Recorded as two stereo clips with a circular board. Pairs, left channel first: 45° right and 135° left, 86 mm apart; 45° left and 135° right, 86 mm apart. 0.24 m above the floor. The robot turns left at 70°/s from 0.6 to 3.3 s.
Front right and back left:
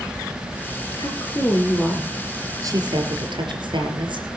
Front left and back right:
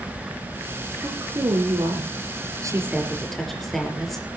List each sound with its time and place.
1.0 s a woman speaking: 65° right, 5 m; by 4.3 s 130° left, 5 m